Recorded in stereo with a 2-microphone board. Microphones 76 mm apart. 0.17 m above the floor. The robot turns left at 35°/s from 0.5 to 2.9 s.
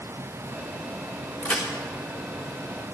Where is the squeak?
No squeak in this recording.